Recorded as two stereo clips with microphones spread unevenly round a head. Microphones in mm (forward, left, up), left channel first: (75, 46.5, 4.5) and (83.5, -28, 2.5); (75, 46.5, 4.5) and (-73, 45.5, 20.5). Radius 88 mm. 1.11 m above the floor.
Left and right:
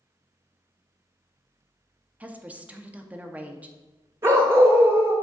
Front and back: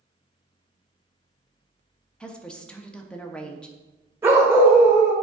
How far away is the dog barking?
About 0.9 m.